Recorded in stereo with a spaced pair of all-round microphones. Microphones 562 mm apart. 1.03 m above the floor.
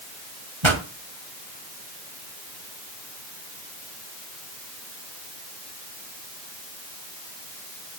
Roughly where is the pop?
Right.